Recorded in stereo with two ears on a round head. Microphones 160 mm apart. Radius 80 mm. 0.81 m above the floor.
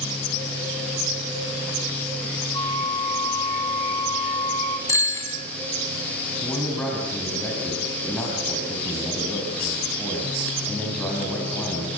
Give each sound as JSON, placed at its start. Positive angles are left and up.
{"t": 2.5, "sound": "a flute", "side_deg": 20, "distance_m": 1.7}
{"t": 4.9, "sound": "a bicycle bell", "side_deg": 15, "distance_m": 4.5}
{"t": 6.4, "sound": "a man speaking", "side_deg": 5, "distance_m": 5.5}